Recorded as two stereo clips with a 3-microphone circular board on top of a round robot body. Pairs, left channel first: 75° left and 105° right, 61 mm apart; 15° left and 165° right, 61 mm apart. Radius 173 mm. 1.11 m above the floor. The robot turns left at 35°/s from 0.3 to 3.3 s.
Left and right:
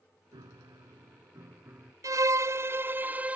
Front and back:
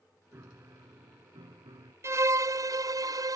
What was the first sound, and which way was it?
A piano, 115° right.